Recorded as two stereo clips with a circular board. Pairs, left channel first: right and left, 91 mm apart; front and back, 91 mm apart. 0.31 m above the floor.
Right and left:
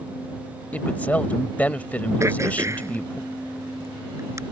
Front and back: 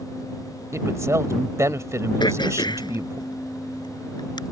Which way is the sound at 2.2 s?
35° left.